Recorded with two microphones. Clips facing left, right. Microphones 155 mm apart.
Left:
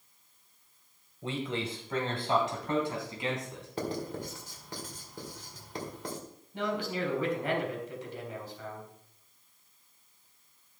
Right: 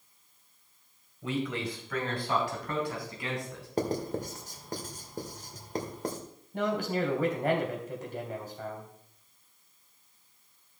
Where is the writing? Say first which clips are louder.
Right 4 dB; 45° right (ahead or behind), 2 m.